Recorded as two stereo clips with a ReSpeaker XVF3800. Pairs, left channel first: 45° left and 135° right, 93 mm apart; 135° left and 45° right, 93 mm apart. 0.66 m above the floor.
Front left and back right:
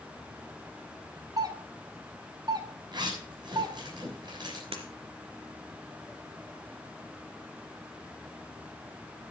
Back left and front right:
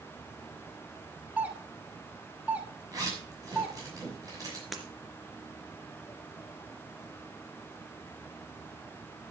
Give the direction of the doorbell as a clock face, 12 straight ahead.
4 o'clock.